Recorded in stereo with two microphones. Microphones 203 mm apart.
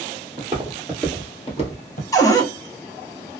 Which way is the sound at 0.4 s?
20° right (ahead or behind).